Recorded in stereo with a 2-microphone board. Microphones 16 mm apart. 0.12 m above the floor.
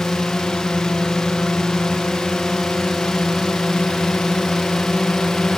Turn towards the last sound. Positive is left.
turn(degrees=50)  # may be behind; listen again after turning